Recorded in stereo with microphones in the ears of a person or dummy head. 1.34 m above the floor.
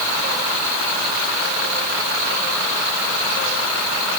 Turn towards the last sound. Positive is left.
No sound to turn to.